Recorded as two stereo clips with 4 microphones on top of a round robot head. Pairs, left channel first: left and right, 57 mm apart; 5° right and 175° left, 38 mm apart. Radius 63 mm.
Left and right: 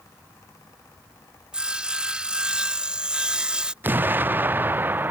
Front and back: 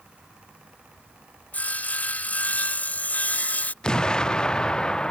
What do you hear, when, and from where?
1.5 s sawing: 25° right
3.8 s an explosion: 60° right